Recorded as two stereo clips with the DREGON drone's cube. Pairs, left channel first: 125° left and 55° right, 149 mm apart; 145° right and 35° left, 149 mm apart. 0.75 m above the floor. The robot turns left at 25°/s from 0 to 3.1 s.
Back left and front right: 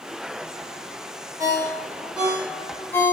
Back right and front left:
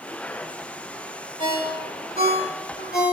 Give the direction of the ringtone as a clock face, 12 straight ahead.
4 o'clock.